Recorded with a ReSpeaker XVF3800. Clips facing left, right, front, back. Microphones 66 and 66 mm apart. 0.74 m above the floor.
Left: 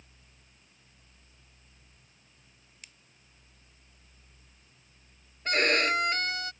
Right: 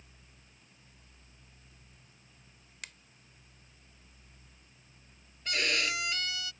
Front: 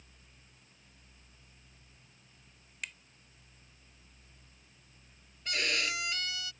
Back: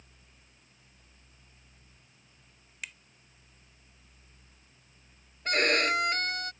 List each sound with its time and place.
2.8 s a finger snap: 95° right
5.5 s a violin: 140° left